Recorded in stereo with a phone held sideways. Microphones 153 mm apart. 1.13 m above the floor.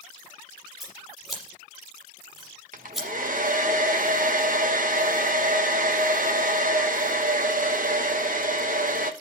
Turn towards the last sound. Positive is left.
turn(degrees=-60)  # may be behind; listen again after turning